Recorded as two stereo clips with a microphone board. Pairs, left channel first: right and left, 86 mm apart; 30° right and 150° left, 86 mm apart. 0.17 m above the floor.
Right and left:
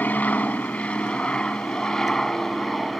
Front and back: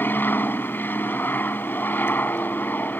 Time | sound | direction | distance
0.0 | an aircraft | 50° right | ?